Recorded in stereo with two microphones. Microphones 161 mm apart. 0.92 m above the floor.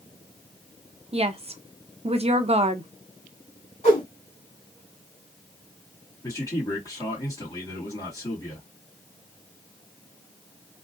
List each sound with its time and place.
1.1 s a woman speaking: 40° right (ahead or behind), 0.5 m
3.8 s a whoosh: 40° left (ahead or behind), 2 m
6.2 s a man speaking: 20° left (ahead or behind), 2 m